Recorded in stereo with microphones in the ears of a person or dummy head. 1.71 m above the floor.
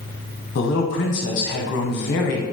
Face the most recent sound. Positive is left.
turn(degrees=50)  # may be behind; listen again after turning